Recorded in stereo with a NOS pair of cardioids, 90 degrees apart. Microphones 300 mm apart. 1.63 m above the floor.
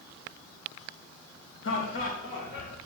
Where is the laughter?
45° left, 3 m.